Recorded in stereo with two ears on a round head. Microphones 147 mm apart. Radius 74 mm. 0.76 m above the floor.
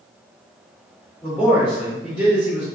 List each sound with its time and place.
1.2 s a man speaking: centre (ahead or behind), 1.9 m